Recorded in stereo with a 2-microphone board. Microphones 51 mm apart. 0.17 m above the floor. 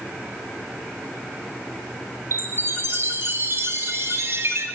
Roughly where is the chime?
Right.